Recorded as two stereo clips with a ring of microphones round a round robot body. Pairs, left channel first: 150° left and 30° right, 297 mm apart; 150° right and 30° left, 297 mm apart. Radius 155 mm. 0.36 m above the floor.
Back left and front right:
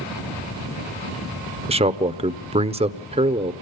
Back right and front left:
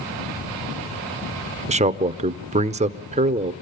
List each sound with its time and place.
1.7 s a man speaking: 5° left, 0.9 m